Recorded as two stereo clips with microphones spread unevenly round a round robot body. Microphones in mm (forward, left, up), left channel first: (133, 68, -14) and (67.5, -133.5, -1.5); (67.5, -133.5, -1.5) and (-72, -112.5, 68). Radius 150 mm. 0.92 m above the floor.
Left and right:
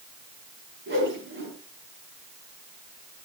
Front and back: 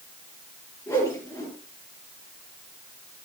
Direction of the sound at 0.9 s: 80° right.